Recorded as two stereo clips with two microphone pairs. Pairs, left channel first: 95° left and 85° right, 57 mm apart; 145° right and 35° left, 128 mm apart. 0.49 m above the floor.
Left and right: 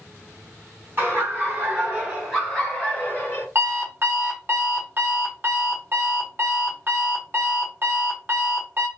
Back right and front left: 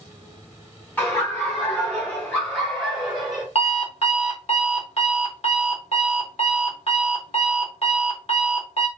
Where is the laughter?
80° right, 1.8 m; by 3.5 s 110° left, 1.6 m.